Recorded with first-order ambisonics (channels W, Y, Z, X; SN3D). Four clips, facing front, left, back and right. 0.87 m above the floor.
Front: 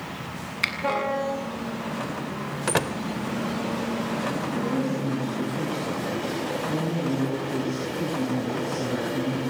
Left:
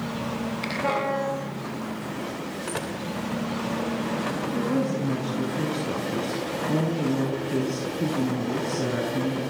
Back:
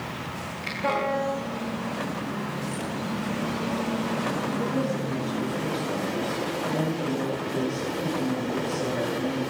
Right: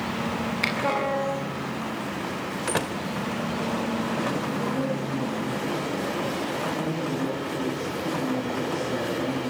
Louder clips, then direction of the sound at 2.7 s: Right 5 dB, front 6 dB; 20° right.